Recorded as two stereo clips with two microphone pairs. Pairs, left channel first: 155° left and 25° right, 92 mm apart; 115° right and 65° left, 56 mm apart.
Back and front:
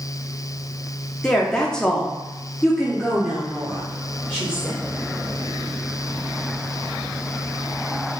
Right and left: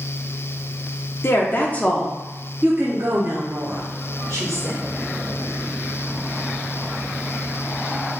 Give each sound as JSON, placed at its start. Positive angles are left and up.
{"t": 1.2, "sound": "a woman speaking", "azimuth_deg": -125, "distance_m": 0.7}